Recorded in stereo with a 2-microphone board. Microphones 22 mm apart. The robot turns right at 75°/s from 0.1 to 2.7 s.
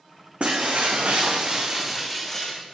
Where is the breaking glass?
125° right, 2.5 m; by 2.8 s 45° left, 2.5 m.